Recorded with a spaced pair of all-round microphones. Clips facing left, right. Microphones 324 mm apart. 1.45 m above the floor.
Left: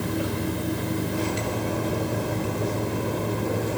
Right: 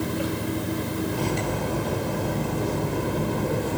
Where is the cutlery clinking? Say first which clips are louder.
Even; 60° right (ahead or behind), 3.5 m.